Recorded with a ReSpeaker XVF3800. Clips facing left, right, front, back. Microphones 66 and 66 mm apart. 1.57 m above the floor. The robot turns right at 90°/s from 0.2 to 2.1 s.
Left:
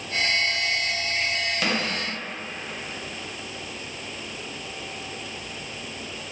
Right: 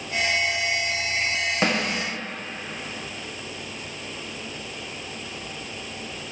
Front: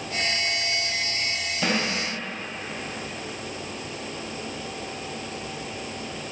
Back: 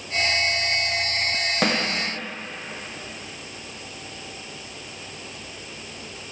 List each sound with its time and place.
1.6 s a snare drum: 150° right, 1.4 m; by 1.8 s 135° right, 1.4 m